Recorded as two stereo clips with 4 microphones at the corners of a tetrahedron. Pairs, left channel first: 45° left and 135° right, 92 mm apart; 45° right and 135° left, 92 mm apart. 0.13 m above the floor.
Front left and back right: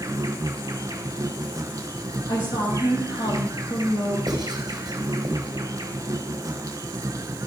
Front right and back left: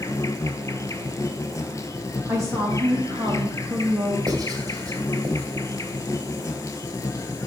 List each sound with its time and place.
0.0 s an insect: 90° right, 0.8 m
2.3 s a woman speaking: 80° left, 4.5 m
4.3 s writing: straight behind, 2.5 m